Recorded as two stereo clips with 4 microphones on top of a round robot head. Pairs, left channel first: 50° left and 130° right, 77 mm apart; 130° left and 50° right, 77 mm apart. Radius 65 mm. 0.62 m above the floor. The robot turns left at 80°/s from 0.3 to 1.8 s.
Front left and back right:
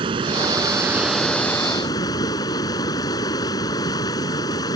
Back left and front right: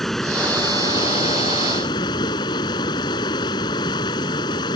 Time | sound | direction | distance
0.0 | running water | 145° right | ?